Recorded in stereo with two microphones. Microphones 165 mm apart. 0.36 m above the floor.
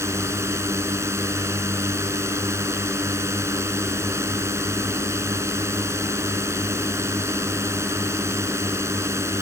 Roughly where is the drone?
Centre.